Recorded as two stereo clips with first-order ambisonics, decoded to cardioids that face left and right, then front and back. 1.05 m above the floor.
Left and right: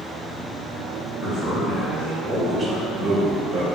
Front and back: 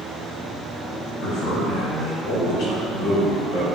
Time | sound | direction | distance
1.2 | a man speaking | 15° left | 1.5 m